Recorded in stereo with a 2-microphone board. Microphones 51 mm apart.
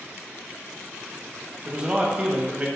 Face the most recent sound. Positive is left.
turn(degrees=-25)  # may be behind; listen again after turning